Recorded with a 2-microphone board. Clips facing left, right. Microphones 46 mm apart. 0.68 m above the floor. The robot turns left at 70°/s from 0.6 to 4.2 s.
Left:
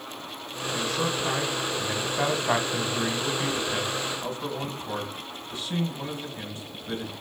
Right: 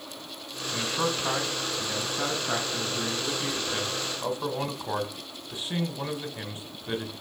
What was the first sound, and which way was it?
A man speaking, 40° right (ahead or behind).